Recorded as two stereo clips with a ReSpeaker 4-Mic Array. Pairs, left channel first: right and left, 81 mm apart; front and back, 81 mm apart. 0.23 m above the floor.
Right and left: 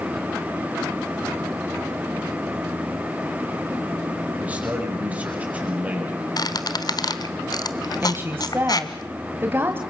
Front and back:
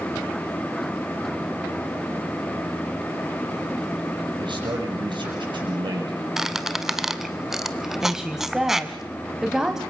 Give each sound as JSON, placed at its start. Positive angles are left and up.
{"t": 4.4, "sound": "a man speaking", "azimuth_deg": 160, "distance_m": 6.5}
{"t": 6.4, "sound": "a squeak", "azimuth_deg": -95, "distance_m": 1.2}
{"t": 8.0, "sound": "a woman speaking", "azimuth_deg": 105, "distance_m": 1.5}